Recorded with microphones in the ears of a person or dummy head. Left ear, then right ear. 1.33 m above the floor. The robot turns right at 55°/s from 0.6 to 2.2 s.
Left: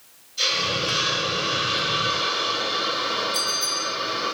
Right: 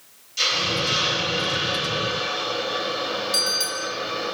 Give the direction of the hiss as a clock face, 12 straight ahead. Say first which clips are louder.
Right 1 dB; 2 o'clock.